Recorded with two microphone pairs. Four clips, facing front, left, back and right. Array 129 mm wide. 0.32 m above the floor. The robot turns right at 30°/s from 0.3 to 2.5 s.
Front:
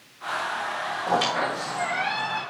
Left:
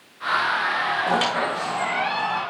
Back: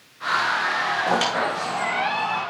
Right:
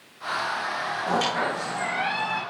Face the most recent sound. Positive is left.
turn(degrees=-175)